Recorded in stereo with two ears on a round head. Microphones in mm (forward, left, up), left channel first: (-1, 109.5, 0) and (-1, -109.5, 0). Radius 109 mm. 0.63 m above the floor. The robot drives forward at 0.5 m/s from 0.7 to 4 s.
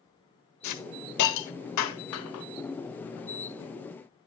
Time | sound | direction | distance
0.6 | a hiss | 75° left (ahead or behind) | 1.2 m